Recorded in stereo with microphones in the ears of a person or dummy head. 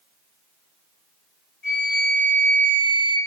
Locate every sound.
1.6 s a flute: 50° left (ahead or behind), 2.5 m